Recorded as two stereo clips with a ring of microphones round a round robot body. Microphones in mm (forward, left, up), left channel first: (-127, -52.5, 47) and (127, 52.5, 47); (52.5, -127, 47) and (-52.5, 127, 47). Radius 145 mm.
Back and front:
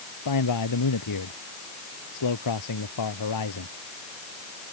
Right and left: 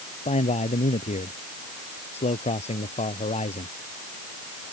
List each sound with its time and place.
0.2 s a man speaking: 135° right